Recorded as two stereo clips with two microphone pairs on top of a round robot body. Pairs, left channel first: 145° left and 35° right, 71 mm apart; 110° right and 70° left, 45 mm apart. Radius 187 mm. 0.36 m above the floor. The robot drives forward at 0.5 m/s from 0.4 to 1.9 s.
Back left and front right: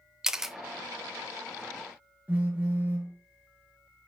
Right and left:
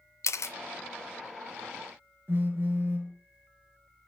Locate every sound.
0.2 s a camera shutter: 115° right, 0.6 m; by 0.6 s 120° right, 0.6 m
2.3 s a phone buzzing: 30° left, 1.9 m